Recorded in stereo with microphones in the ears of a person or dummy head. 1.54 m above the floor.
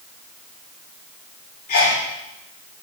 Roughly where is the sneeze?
Left.